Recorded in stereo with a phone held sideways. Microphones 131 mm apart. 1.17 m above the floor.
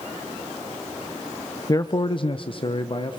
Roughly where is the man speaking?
Left.